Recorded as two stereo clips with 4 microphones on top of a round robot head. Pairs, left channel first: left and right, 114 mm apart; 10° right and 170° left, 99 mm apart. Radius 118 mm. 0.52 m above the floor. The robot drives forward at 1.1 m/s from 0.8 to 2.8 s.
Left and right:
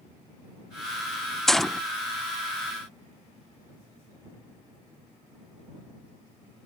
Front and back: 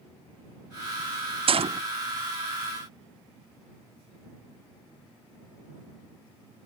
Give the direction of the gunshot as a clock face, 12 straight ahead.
6 o'clock.